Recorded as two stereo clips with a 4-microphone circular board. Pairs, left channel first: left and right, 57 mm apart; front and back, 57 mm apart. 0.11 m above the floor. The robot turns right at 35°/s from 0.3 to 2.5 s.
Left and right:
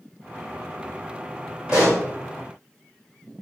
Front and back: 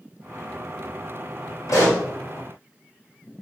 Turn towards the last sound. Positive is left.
turn(degrees=10)